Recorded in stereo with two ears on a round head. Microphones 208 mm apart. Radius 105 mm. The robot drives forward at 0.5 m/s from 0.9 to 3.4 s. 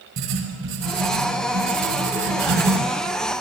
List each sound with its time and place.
0.2 s writing: 65° right (ahead or behind), 5.5 m; by 2.8 s 55° right (ahead or behind), 6 m